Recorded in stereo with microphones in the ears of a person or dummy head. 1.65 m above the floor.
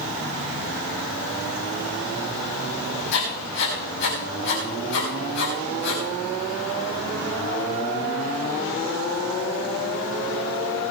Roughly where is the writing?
Left.